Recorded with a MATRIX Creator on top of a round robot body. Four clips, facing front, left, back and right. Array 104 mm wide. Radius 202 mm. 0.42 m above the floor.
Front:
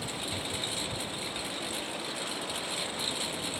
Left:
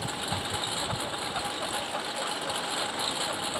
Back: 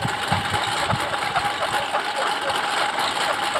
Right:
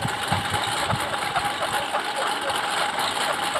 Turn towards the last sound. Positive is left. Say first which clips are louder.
# right 8 dB, back 14 dB
turn(degrees=-155)